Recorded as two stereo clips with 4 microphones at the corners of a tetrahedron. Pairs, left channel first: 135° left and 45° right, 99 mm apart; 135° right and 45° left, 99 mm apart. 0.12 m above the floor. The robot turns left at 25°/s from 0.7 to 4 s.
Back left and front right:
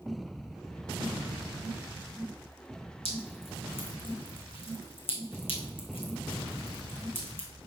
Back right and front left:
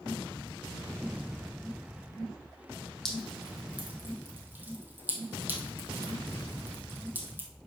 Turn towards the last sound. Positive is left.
turn(degrees=115)